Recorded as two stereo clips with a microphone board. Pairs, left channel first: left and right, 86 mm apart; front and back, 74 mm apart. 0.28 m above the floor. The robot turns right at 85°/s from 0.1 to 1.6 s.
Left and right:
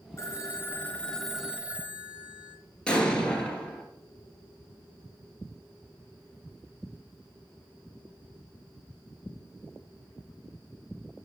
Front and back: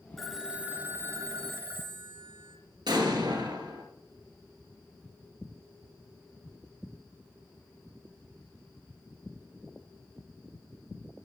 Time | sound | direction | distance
0.2 | a phone ringing | 85° left | 1.0 m
2.9 | an explosion | 170° left | 1.7 m